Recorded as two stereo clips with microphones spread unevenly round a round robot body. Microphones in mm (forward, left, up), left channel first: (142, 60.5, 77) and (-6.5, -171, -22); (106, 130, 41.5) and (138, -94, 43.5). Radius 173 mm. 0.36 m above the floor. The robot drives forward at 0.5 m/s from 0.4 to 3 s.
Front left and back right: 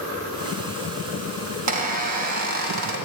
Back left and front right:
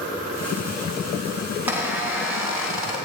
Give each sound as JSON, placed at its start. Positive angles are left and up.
{"t": 1.7, "sound": "a squeak", "azimuth_deg": -165, "distance_m": 1.1}